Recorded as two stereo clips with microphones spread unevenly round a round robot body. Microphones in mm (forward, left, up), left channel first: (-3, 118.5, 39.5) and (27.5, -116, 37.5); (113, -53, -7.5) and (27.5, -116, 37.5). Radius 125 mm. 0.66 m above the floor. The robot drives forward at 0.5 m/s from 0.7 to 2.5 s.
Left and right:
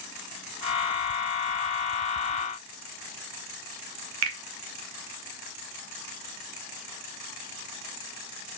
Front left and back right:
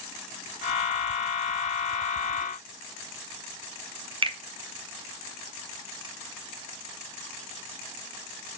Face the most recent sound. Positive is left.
turn(degrees=-90)